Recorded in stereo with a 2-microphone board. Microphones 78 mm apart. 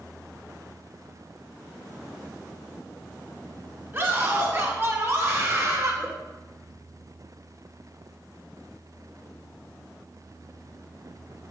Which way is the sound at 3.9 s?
35° right (ahead or behind).